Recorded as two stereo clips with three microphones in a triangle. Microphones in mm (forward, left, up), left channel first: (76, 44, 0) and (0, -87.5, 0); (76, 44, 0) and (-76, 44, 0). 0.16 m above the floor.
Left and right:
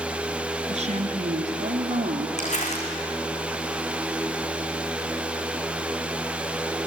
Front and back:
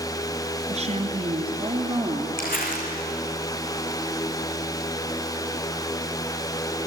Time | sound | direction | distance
0.7 | a woman speaking | 150° right | 2.5 m
2.4 | crumpling | 20° left | 4.5 m